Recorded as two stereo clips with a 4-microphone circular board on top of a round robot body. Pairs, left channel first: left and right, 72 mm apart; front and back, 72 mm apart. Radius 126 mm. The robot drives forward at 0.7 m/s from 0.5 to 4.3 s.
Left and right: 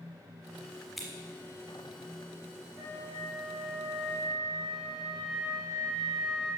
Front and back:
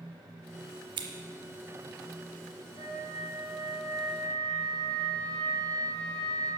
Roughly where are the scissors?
Behind.